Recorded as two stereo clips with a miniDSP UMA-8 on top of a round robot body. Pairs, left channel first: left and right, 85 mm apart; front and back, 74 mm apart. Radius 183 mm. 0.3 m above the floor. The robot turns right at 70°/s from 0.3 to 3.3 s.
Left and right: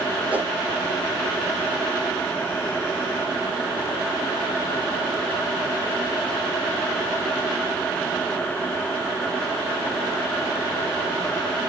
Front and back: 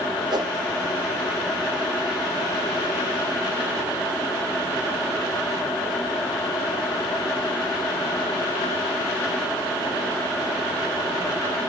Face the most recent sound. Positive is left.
turn(degrees=45)